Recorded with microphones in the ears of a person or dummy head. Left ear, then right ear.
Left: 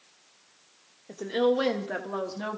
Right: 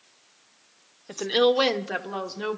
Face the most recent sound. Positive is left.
turn(degrees=-5)  # may be behind; listen again after turning